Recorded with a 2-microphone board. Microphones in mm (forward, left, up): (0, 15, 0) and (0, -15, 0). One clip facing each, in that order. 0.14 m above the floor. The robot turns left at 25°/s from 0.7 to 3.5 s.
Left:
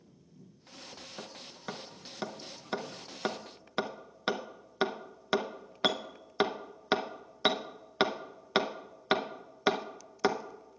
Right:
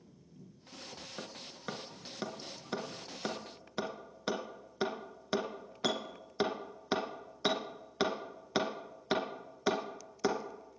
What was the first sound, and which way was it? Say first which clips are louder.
Hammering: even; 10° right (ahead or behind).